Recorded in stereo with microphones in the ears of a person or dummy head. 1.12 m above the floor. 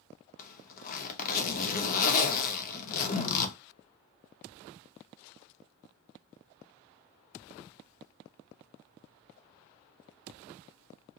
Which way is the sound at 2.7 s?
30° left (ahead or behind).